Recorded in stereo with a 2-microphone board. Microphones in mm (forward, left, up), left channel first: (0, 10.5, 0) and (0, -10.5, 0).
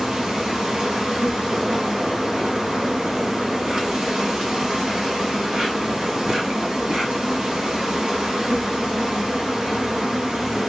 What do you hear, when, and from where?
0.0 s an insect: 35° right (ahead or behind), 2 m